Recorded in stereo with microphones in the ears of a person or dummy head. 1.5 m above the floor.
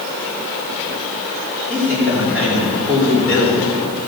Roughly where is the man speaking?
Centre.